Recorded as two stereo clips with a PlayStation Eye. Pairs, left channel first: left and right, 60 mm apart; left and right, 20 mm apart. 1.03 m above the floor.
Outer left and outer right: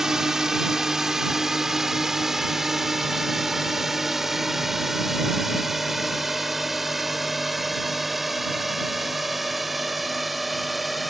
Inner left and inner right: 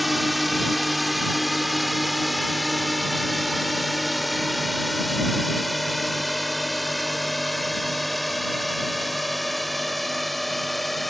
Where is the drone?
5° right (ahead or behind); by 11.1 s centre (ahead or behind).